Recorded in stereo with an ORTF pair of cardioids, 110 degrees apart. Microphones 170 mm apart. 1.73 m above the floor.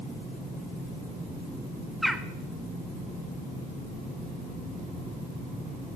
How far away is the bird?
About 0.7 m.